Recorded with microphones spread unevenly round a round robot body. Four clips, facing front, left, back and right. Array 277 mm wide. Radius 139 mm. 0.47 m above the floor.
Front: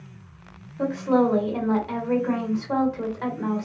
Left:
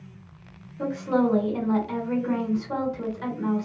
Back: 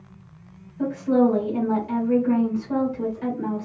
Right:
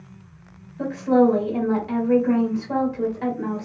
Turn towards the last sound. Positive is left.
turn(degrees=-35)